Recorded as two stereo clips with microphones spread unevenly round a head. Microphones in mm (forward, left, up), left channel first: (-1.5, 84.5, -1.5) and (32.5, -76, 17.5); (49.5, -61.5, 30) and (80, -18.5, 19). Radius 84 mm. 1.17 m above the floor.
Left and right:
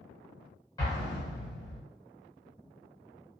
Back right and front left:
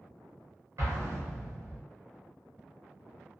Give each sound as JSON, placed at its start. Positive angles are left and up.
{"t": 0.8, "sound": "an explosion", "azimuth_deg": 35, "distance_m": 1.3}